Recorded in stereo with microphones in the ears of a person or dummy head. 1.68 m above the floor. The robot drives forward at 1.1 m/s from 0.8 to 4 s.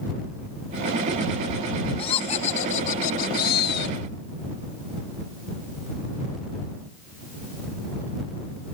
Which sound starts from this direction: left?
Laughter, at 2.0 s.